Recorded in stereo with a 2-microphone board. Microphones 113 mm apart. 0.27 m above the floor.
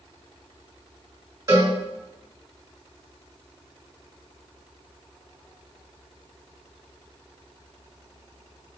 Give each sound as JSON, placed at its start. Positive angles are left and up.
{"t": 1.5, "sound": "a cowbell", "side_deg": -35, "distance_m": 1.5}